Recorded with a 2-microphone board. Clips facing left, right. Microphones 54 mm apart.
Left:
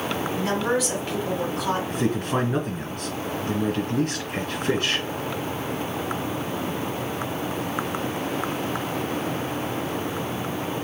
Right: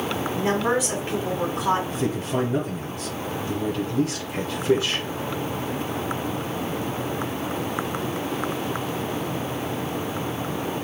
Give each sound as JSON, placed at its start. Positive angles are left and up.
{"t": 0.3, "sound": "a woman speaking", "side_deg": -20, "distance_m": 1.7}
{"t": 1.9, "sound": "a man speaking", "side_deg": 55, "distance_m": 2.0}